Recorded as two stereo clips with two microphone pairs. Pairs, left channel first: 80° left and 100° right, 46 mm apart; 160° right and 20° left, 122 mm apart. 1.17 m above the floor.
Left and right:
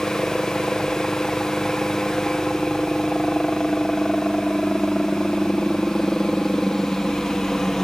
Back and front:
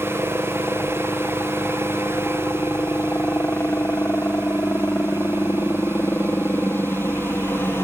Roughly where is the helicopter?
Behind left.